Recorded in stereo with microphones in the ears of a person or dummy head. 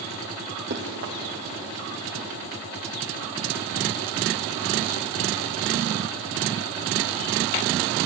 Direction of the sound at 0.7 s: 50° right (ahead or behind).